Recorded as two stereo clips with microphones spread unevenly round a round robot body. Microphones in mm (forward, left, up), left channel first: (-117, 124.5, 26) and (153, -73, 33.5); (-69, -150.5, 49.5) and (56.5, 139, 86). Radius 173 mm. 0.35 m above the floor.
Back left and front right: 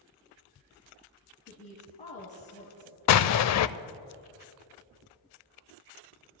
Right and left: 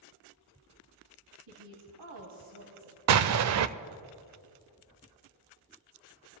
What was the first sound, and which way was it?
A woman speaking, 75° left.